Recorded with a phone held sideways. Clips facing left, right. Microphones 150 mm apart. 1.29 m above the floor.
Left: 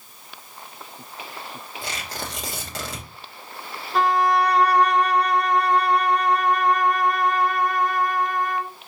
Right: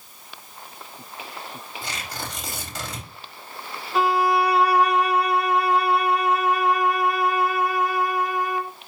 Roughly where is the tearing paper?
Left.